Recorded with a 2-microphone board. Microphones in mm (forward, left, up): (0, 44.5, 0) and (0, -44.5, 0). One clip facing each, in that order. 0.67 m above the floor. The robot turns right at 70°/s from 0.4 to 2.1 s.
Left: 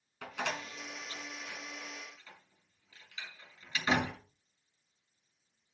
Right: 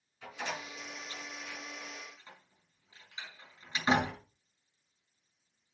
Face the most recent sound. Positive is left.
turn(degrees=-25)  # may be behind; listen again after turning